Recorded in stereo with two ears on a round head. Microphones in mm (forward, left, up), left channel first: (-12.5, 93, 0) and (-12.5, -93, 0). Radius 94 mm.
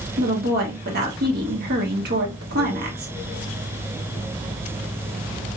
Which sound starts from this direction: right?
A woman speaking, at 0.2 s.